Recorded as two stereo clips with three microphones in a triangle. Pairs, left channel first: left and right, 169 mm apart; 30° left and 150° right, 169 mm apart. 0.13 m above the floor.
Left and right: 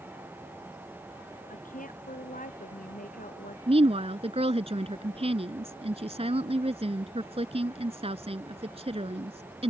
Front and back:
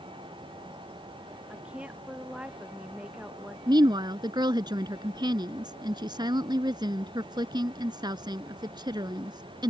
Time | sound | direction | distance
1.5 | a woman speaking | 125° left | ?
3.7 | a woman speaking | 105° right | ?